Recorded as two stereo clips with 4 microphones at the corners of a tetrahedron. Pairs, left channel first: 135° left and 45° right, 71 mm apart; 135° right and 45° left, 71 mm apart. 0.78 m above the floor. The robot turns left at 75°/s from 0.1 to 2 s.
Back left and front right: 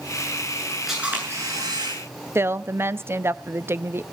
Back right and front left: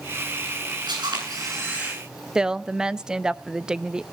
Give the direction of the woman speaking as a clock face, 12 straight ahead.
1 o'clock.